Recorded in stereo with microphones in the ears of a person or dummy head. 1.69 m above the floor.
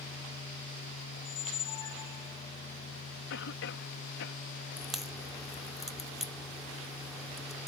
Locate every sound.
1.2 s a squeak: 25° left (ahead or behind)
3.3 s a cough: 55° left (ahead or behind)
4.8 s a crack: 5° right (ahead or behind)